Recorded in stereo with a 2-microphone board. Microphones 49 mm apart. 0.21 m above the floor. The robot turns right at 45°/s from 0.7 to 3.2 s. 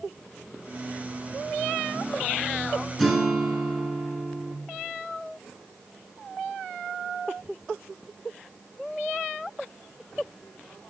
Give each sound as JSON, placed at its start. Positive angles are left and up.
{"t": 3.0, "sound": "a guitar", "side_deg": 5, "distance_m": 0.9}